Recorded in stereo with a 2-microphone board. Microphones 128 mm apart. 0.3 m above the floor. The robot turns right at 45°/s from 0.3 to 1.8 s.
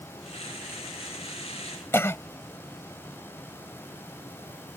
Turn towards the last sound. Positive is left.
turn(degrees=20)  # may be behind; listen again after turning